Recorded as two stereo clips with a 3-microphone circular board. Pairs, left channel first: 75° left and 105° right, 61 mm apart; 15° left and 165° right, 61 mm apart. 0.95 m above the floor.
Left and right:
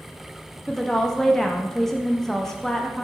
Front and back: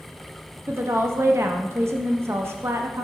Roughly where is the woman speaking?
Behind left.